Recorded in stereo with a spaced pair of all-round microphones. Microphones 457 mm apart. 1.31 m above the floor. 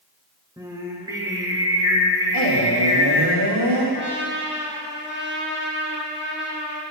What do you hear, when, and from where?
0.6 s singing: 10° right (ahead or behind), 1.1 m
2.3 s a man speaking: 60° right (ahead or behind), 2.5 m
3.9 s a trumpet: 25° right (ahead or behind), 1.6 m